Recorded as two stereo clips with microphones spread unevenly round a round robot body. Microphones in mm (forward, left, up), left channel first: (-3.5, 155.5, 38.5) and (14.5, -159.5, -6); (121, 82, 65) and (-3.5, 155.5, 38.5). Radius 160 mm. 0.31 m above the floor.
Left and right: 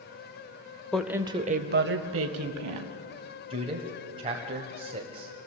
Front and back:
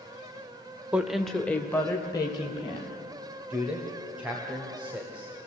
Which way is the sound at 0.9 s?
165° right.